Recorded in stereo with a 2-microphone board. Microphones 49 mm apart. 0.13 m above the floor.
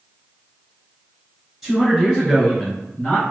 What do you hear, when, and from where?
1.6 s a man speaking: centre (ahead or behind), 1.8 m; by 3.3 s 30° left (ahead or behind), 1.9 m